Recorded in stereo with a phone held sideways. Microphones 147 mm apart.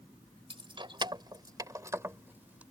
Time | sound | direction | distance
0.5 | keys jangling | 40° right (ahead or behind) | ?